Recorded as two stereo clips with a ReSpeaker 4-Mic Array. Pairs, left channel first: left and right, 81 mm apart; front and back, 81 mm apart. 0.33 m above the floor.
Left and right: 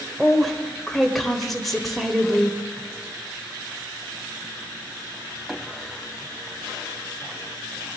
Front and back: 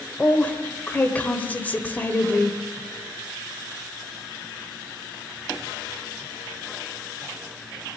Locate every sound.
0.2 s a woman speaking: straight ahead, 1.3 m